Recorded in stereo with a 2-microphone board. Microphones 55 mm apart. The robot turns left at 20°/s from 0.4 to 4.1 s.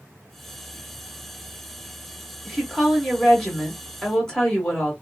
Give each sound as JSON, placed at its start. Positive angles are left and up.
{"t": 2.5, "sound": "a woman speaking", "side_deg": 0, "distance_m": 1.2}